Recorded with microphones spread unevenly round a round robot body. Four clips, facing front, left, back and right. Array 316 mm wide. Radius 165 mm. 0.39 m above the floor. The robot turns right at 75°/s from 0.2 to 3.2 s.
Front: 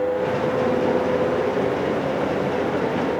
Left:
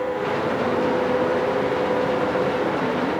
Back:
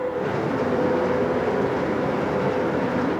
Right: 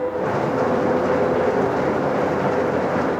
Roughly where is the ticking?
I don't hear ticking.